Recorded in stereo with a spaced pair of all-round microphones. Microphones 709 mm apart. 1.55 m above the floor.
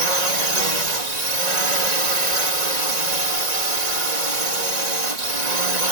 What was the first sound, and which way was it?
A drone, 80° right.